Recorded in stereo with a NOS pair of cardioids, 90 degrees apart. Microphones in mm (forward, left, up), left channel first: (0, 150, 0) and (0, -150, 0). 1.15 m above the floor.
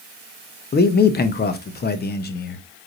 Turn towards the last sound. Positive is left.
turn(degrees=30)